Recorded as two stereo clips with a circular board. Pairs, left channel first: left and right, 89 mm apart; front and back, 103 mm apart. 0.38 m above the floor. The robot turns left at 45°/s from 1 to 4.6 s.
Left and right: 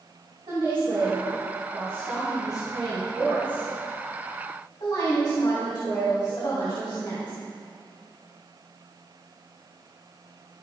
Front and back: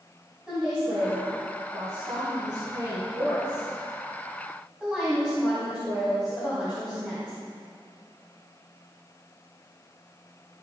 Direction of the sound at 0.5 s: 100° right.